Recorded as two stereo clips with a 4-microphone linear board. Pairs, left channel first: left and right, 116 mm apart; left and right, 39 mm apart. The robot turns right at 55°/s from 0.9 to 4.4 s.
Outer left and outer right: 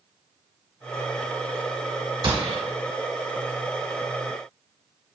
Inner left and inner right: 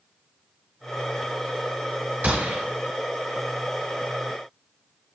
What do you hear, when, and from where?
2.2 s a gunshot: 45° right (ahead or behind), 0.9 m; by 2.6 s 50° right (ahead or behind), 0.9 m